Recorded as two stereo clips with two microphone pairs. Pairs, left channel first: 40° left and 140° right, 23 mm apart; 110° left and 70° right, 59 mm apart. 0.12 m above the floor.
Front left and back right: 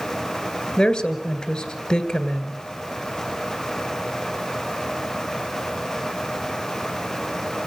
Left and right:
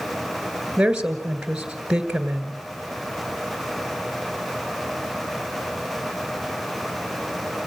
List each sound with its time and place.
0.8 s a woman speaking: 5° left, 2 m